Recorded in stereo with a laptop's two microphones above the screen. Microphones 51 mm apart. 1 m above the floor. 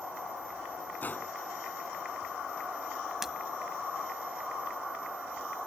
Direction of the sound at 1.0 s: 40° left (ahead or behind).